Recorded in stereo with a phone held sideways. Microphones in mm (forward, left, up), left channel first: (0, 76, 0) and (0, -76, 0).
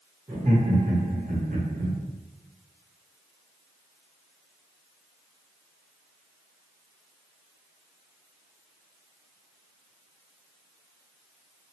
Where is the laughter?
45° right (ahead or behind), 1.1 m; by 2.0 s 80° right, 0.5 m.